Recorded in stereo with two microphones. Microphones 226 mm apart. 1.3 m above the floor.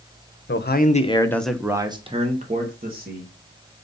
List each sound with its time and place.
0.5 s a man speaking: 55° left (ahead or behind), 0.9 m; by 3.3 s 45° right (ahead or behind), 1.9 m